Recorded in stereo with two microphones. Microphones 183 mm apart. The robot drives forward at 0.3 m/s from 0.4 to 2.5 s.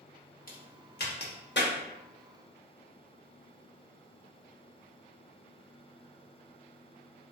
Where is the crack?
55° left (ahead or behind), 0.8 m; by 1.7 s 80° left, 0.6 m.